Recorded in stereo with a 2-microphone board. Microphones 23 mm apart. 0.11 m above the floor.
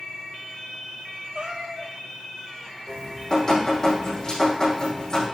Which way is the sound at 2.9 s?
30° left (ahead or behind).